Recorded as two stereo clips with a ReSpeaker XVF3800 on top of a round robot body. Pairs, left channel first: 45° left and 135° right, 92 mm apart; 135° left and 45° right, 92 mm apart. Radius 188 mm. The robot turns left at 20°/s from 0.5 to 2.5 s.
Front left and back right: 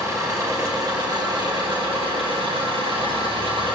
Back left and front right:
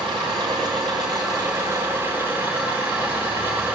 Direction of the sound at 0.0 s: 80° right.